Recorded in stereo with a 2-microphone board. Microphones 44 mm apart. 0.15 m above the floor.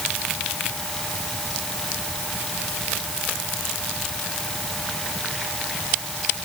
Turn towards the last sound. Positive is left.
No sound to turn to.